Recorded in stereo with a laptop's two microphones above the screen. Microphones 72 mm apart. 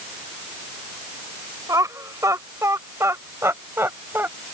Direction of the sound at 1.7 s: 55° right (ahead or behind).